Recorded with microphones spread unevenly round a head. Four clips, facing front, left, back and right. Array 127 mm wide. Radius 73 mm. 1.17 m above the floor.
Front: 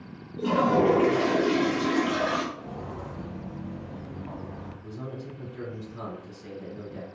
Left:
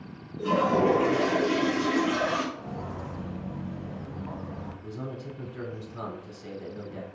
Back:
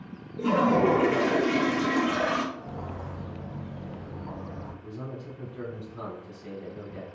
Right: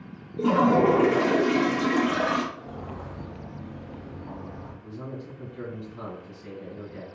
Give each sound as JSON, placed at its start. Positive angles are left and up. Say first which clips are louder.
{"t": 0.4, "sound": "a toilet flushing", "louder": "right 3 dB, even", "azimuth_deg": -95, "distance_m": 0.6}
{"t": 2.5, "sound": "footsteps", "louder": "left 1 dB, even", "azimuth_deg": 55, "distance_m": 1.5}
{"t": 4.8, "sound": "a man speaking", "louder": "right 1 dB, front 3 dB", "azimuth_deg": 85, "distance_m": 1.9}